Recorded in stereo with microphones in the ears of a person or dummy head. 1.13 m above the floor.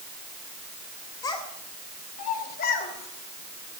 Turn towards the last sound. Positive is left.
turn(degrees=70)  # may be behind; listen again after turning